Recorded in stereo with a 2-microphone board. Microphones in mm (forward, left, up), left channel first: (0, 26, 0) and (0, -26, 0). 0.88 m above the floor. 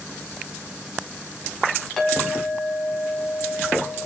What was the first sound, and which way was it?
A clink, 10° left (ahead or behind).